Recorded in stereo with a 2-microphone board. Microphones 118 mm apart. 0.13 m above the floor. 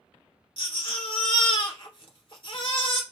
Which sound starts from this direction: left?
A baby crying, at 0.6 s.